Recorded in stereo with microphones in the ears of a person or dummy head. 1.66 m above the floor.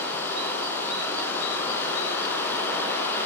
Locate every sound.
0.0 s running water: 10° left (ahead or behind), 4 m